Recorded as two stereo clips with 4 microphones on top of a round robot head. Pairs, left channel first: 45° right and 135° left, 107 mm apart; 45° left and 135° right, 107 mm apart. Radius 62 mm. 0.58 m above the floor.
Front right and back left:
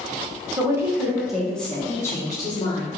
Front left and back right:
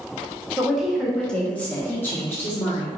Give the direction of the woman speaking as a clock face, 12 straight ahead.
7 o'clock.